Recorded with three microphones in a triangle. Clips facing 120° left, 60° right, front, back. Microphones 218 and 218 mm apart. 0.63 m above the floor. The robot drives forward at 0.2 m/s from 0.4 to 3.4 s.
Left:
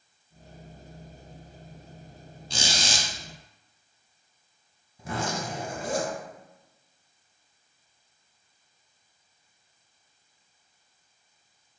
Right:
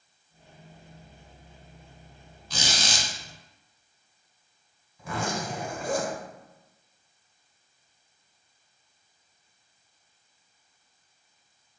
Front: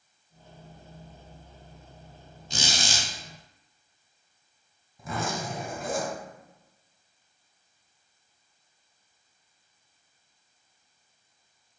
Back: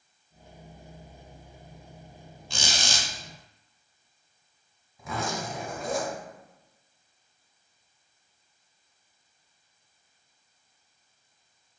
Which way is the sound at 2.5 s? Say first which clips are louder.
Even, front 1 dB; 65° left.